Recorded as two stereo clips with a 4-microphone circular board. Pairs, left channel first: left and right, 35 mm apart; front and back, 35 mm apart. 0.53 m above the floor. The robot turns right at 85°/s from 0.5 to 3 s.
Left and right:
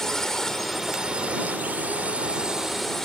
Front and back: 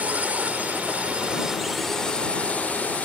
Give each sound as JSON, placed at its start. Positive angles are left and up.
{"t": 0.0, "sound": "a drone", "azimuth_deg": 165}